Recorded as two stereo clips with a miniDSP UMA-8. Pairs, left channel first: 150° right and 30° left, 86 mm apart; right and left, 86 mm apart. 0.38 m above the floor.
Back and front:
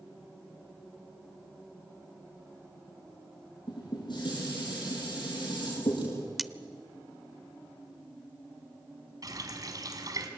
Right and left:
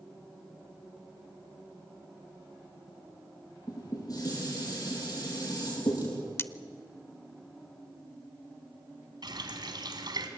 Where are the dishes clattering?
130° right, 8 m.